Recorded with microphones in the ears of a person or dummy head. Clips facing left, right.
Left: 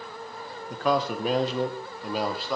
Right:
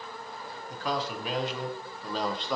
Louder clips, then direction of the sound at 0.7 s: Left 7 dB; 55° left (ahead or behind).